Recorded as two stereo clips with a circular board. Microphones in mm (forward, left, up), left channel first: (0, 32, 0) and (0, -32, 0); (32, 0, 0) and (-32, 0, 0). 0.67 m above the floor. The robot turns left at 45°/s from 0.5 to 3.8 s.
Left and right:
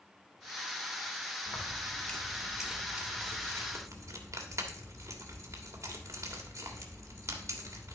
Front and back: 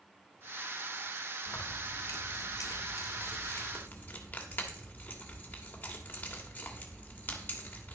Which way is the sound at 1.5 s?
45° left.